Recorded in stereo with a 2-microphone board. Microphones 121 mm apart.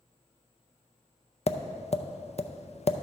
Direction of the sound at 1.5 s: 60° left (ahead or behind).